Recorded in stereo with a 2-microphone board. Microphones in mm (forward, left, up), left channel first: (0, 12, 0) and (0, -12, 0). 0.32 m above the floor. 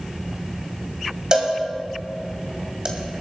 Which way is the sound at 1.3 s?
35° right (ahead or behind).